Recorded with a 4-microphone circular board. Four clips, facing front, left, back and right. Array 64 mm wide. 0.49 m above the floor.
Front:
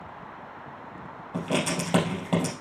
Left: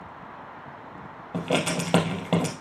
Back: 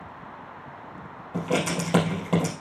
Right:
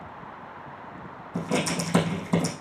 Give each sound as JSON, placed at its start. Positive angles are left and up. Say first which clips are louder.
{"t": 1.3, "sound": "writing", "louder": "left 1 dB, back 2 dB", "azimuth_deg": 90, "distance_m": 3.0}